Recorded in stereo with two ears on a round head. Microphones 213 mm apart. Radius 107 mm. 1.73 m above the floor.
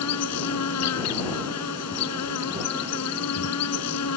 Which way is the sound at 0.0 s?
75° left (ahead or behind).